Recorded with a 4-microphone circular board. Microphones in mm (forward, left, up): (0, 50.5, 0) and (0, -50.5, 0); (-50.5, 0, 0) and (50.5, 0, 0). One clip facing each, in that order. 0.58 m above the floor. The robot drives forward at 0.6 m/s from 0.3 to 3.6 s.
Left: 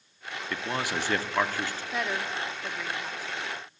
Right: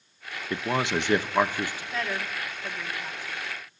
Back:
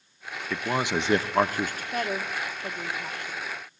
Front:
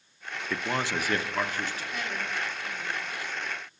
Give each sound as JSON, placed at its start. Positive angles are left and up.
{"t": 0.5, "sound": "a man speaking", "azimuth_deg": -90, "distance_m": 0.7}
{"t": 1.9, "sound": "a woman speaking", "azimuth_deg": 165, "distance_m": 1.5}